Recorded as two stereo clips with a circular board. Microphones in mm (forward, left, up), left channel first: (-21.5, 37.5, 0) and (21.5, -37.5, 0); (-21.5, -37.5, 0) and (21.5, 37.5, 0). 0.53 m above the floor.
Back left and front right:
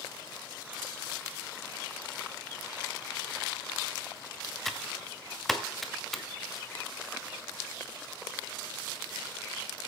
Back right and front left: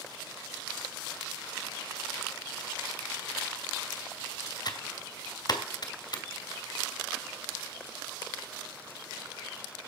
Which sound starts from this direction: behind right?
Typing on a keyboard, at 4.7 s.